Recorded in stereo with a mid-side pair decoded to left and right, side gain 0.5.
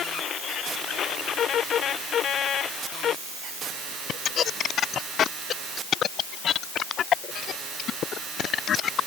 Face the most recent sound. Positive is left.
No sound to turn to.